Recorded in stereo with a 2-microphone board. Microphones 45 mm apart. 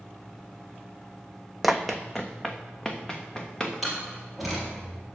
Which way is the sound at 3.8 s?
Centre (ahead or behind).